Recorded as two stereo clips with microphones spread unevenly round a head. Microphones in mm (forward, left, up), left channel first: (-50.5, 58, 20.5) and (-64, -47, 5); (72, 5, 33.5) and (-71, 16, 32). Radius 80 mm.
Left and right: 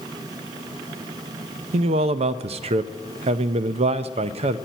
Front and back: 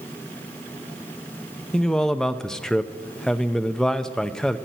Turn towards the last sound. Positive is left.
turn(degrees=-90)